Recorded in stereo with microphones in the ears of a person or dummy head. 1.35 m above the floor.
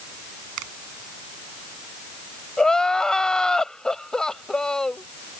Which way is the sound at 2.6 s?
10° left (ahead or behind).